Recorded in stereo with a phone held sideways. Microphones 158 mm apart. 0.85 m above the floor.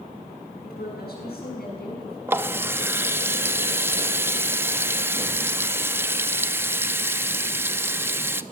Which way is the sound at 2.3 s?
15° right (ahead or behind).